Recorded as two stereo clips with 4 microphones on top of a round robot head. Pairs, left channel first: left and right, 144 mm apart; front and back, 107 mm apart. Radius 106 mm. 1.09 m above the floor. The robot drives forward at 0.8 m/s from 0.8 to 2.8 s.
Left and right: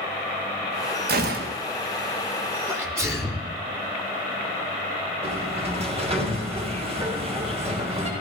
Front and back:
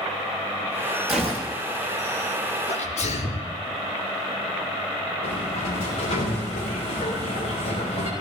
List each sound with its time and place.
1.1 s a gunshot: 90° right, 1.8 m; by 1.6 s 105° right, 1.8 m
2.7 s a sneeze: 15° right, 3.5 m; by 3.5 s 20° right, 3.5 m
5.2 s a sliding door: 45° right, 4.5 m